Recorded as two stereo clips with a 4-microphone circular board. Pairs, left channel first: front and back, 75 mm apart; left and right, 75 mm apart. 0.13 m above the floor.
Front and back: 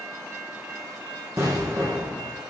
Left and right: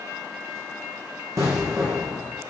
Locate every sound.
1.4 s an explosion: 135° right, 2.5 m